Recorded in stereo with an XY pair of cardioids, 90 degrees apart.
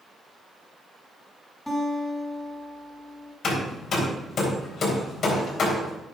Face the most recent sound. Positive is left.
turn(degrees=55)